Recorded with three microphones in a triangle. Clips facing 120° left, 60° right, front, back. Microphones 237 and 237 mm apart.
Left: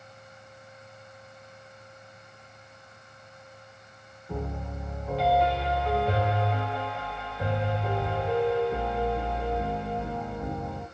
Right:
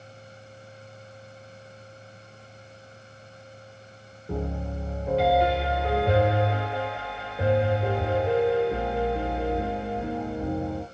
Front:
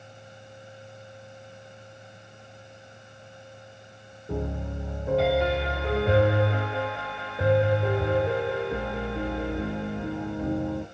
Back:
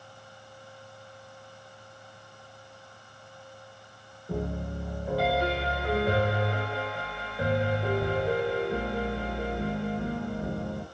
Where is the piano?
70° right, 1.0 m.